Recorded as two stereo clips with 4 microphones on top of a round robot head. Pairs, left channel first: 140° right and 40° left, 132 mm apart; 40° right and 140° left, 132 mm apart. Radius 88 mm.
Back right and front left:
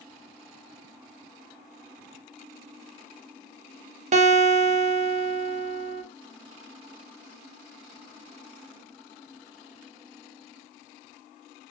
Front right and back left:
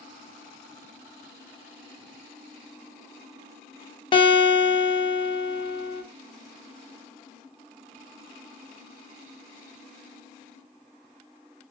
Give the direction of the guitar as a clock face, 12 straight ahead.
12 o'clock.